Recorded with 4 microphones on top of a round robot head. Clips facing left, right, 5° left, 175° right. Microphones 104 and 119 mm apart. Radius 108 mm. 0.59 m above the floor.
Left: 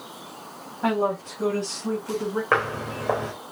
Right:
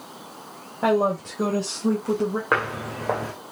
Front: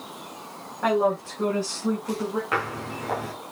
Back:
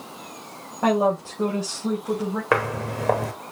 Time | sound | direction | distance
0.8 | a woman speaking | 110° right | 3 m
2.5 | footsteps | 170° right | 2.5 m